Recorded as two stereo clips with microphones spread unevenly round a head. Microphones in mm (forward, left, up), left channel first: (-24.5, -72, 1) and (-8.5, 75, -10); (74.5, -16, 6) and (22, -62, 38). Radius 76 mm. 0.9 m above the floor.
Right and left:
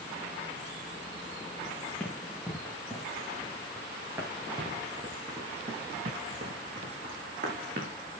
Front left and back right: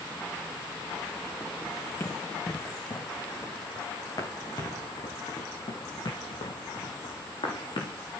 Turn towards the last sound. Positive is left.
turn(degrees=40)